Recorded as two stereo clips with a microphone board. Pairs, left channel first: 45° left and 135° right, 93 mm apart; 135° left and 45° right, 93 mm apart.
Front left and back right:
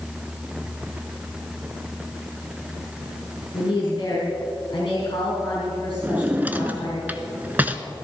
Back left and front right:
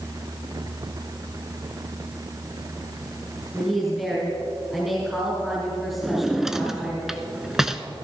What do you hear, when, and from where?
3.5 s a woman speaking: 40° left, 3.5 m
6.0 s a drawer: 125° right, 0.7 m